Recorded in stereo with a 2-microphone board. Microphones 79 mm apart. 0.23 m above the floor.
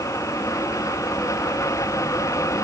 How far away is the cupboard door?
I don't hear a cupboard door.